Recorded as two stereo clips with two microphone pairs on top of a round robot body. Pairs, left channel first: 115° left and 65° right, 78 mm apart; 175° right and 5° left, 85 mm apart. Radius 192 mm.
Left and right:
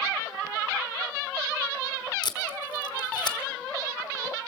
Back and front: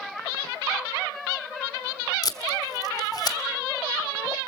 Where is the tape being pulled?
140° left, 1.4 m.